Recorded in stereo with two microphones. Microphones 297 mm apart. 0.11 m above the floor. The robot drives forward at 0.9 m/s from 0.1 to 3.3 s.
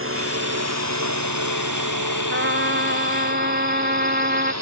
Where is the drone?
45° right (ahead or behind); by 4.6 s 60° right (ahead or behind).